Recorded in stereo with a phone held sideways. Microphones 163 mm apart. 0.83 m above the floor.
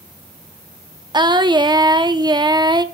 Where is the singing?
30° right (ahead or behind), 0.7 m.